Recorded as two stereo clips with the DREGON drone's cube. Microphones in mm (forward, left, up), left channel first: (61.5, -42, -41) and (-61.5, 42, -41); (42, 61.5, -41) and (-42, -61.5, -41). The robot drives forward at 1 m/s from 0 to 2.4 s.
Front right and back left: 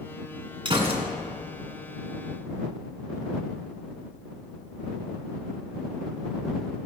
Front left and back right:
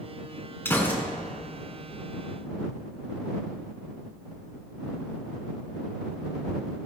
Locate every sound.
0.7 s a gunshot: 120° left, 1.7 m; by 1.0 s 135° left, 1.9 m